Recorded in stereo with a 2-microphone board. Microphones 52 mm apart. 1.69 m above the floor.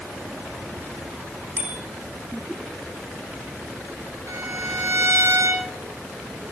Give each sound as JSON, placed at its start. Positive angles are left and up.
{"t": 1.6, "sound": "a bicycle bell", "side_deg": -35, "distance_m": 4.0}
{"t": 4.3, "sound": "a violin", "side_deg": -75, "distance_m": 4.0}